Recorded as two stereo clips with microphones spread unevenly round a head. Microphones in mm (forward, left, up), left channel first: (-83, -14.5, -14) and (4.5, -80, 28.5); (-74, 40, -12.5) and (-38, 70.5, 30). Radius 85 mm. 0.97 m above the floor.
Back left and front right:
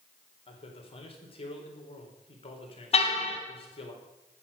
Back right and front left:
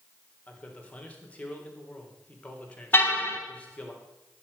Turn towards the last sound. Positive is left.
turn(degrees=175)